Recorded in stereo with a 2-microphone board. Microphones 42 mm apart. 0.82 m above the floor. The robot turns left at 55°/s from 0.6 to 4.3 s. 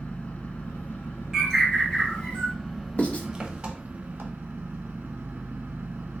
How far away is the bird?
About 1.1 m.